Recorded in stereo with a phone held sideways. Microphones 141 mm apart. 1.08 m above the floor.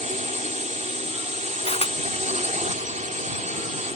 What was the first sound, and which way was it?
A drone, 60° right (ahead or behind).